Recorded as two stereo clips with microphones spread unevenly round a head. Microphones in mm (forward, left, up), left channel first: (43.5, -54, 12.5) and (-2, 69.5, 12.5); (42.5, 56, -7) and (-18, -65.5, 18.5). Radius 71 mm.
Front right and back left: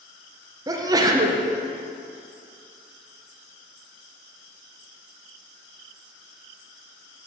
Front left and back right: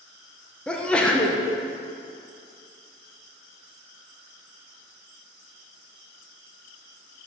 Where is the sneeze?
110° left, 0.8 m.